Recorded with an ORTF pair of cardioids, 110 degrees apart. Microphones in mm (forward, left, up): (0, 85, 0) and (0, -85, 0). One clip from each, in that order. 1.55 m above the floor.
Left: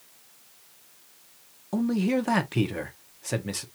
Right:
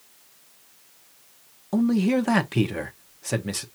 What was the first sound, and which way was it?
A man speaking, 15° right.